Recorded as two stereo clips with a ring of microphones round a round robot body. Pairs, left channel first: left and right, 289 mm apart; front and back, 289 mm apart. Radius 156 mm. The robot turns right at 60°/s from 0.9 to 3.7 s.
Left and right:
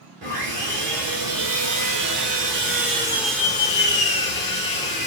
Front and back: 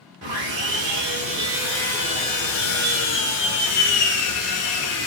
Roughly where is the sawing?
Behind right.